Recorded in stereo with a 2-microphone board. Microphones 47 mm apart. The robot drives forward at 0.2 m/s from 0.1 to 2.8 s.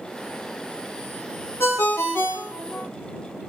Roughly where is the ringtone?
Left.